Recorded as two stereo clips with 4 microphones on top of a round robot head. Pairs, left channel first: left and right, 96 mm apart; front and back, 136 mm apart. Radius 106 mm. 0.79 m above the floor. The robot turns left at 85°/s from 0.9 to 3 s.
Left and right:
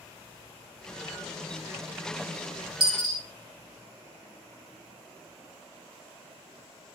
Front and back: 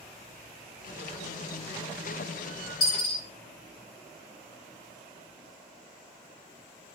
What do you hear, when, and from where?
2.8 s a dropped coin: 65° right, 1.1 m; by 3.2 s 85° right, 1.1 m